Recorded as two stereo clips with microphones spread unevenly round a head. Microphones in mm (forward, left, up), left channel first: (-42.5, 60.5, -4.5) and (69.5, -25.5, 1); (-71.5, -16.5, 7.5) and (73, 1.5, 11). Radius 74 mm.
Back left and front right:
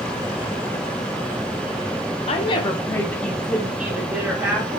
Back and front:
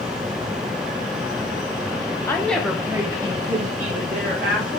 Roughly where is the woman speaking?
Behind left.